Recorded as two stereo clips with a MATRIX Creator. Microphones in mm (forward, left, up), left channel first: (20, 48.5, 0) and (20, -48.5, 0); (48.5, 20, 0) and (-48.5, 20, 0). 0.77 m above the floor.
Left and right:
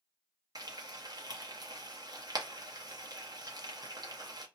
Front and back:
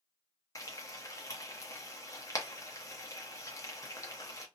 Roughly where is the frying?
Ahead right.